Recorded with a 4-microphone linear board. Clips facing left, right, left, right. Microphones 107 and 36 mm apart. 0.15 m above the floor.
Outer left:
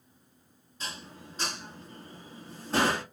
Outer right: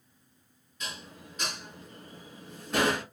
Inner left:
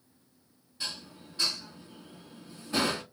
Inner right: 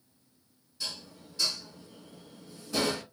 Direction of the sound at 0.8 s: 35° left (ahead or behind).